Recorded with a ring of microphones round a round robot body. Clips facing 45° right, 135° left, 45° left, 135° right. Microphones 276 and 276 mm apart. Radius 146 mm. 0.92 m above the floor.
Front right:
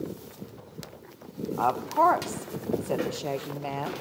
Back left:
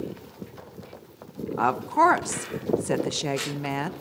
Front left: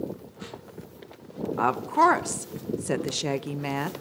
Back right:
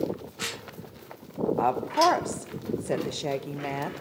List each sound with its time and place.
1.6 s a woman speaking: 100° left, 0.7 m